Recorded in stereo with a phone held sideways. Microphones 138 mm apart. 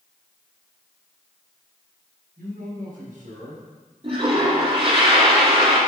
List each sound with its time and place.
2.4 s a man speaking: 65° right (ahead or behind), 5 m
4.0 s a toilet flushing: 40° right (ahead or behind), 3 m